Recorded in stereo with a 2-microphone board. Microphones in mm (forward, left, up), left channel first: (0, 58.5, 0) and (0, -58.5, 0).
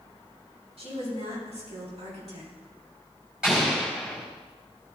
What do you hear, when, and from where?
0.8 s a woman speaking: 65° right (ahead or behind), 4.5 m; by 2.5 s 70° right (ahead or behind), 3.5 m
3.4 s an explosion: 10° right (ahead or behind), 4 m